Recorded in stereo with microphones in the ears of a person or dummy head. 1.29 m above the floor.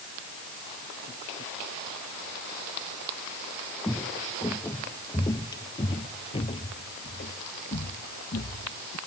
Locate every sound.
3.8 s footsteps: 5° left (ahead or behind); by 9.0 s 45° left (ahead or behind)